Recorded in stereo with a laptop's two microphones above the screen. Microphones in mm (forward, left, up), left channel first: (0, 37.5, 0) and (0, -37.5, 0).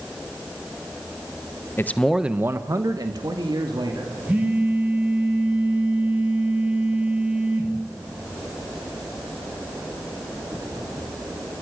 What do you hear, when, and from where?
1.8 s a man speaking: 30° left (ahead or behind), 0.9 m; by 4.2 s 75° right (ahead or behind), 3 m
4.3 s a phone buzzing: 20° right (ahead or behind), 9 m